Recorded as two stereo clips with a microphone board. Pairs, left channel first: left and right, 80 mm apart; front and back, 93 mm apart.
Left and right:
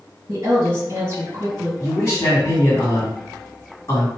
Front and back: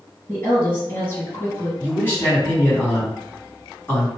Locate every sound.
0.3 s a woman speaking: 50° right, 1.9 m
1.8 s a man speaking: 55° left, 1.9 m